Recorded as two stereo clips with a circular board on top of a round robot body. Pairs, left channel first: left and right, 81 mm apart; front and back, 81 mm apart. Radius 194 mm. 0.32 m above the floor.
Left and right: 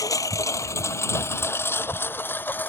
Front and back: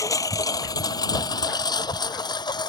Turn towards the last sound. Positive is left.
turn(degrees=25)